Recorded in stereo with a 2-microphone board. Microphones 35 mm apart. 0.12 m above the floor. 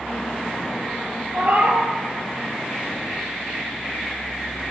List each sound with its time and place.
1.3 s a cat meowing: 55° right (ahead or behind), 0.6 m